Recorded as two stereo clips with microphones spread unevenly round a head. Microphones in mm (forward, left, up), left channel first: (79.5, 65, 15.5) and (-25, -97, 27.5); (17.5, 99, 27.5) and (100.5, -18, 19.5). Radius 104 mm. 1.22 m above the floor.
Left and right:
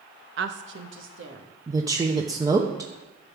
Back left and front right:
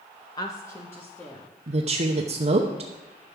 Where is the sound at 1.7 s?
55° right, 0.8 m.